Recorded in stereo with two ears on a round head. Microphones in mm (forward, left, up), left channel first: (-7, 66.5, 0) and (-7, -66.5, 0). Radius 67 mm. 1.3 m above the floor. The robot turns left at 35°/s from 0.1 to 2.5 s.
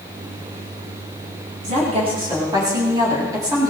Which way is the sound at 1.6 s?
125° right.